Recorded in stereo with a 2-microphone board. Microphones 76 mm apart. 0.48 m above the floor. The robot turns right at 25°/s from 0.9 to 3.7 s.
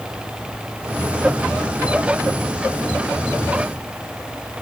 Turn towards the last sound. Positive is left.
No sound to turn to.